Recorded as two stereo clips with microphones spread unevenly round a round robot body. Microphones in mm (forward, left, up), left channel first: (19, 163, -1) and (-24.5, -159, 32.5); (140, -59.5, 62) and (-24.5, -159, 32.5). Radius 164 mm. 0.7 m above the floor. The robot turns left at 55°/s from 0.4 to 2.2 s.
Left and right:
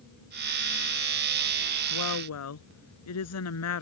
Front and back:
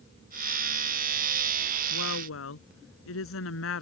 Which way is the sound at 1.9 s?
50° left.